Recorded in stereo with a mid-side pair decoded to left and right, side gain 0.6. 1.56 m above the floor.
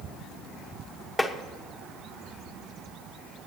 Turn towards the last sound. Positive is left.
turn(degrees=5)